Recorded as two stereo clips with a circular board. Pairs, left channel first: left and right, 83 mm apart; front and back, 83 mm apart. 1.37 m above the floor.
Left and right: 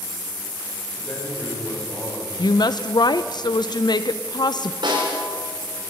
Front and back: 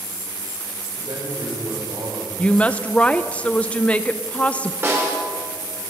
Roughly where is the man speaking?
Behind.